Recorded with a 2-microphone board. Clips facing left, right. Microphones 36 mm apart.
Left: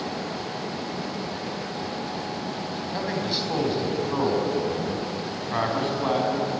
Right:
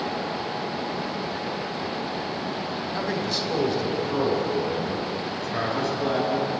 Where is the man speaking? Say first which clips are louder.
Even; 10° left (ahead or behind), 4.5 m; by 6.5 s 40° left (ahead or behind), 5 m.